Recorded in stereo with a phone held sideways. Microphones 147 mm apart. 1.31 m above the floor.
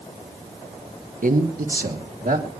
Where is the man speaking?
65° right (ahead or behind), 1.9 m; by 2.5 s 75° right (ahead or behind), 3.5 m.